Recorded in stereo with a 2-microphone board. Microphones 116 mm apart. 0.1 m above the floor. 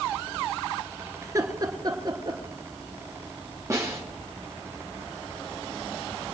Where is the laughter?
25° right (ahead or behind), 1.5 m; by 2.4 s 45° right (ahead or behind), 2.0 m.